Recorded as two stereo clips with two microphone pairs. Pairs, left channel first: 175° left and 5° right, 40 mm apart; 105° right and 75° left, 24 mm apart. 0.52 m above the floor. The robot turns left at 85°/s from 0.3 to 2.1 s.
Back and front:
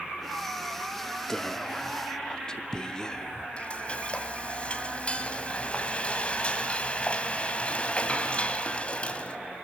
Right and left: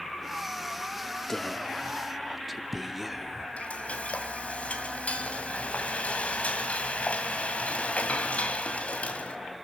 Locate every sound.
1.3 s whispering: 135° right, 0.7 m; by 3.5 s 155° left, 0.7 m
3.6 s frying: 130° right, 1.9 m